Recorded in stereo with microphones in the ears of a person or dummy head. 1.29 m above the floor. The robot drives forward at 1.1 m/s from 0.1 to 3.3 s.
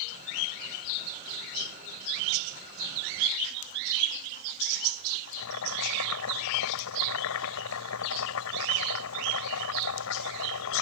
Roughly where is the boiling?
Left.